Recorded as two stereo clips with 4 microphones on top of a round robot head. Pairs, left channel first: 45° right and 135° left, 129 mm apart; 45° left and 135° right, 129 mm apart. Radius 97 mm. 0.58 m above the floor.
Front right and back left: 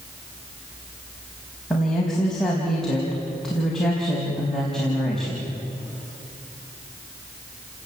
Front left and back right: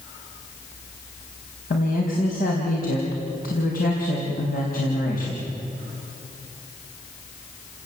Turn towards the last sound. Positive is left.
turn(degrees=40)